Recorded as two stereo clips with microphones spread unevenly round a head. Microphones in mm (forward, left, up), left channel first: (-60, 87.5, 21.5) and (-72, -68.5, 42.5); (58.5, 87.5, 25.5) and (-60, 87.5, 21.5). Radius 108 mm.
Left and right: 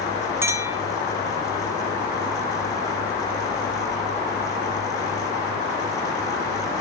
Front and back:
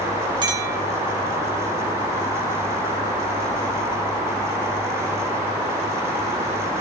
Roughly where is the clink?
Behind right.